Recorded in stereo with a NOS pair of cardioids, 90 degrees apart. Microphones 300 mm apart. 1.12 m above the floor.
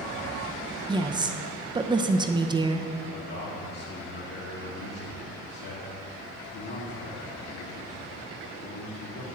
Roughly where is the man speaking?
Ahead left.